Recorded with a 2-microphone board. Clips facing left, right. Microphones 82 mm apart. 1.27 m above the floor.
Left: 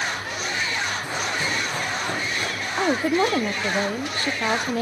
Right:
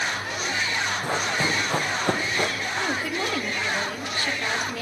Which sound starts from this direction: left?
A woman speaking, at 2.8 s.